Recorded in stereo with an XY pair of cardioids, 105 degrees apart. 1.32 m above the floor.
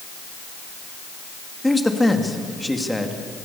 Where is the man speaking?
5° left, 2.5 m.